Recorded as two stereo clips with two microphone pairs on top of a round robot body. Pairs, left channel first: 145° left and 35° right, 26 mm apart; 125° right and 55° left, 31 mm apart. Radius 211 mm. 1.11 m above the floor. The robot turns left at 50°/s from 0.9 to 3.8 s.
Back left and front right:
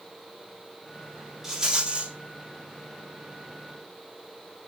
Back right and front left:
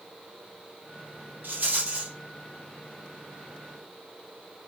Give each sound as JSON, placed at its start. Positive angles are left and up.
{"t": 1.4, "sound": "a rattle", "azimuth_deg": 40, "distance_m": 5.0}